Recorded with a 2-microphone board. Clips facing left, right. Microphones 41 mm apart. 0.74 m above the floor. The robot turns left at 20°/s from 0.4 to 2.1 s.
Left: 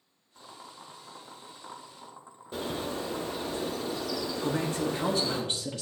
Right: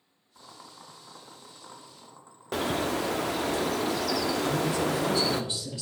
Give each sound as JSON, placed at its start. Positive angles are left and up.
{"t": 0.3, "sound": "boiling", "side_deg": -5, "distance_m": 0.8}
{"t": 2.5, "sound": "a bird", "side_deg": -85, "distance_m": 0.5}
{"t": 4.4, "sound": "a man speaking", "side_deg": 50, "distance_m": 1.2}